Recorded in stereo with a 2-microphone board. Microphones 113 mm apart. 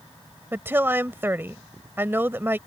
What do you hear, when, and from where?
0.5 s a woman speaking: 20° right (ahead or behind)